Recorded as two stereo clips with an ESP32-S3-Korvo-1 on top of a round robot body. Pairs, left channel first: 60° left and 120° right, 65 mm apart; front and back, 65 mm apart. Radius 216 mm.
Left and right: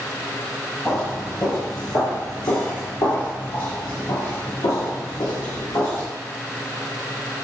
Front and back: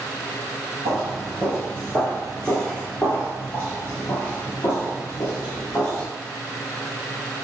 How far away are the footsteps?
About 0.9 m.